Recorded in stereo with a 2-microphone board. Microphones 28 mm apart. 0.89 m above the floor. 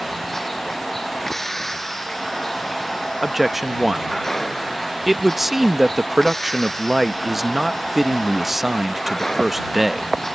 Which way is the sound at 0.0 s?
15° left (ahead or behind).